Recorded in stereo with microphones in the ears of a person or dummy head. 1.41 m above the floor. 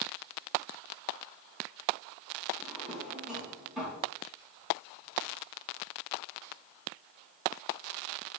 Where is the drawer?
Centre (ahead or behind), 3.5 m.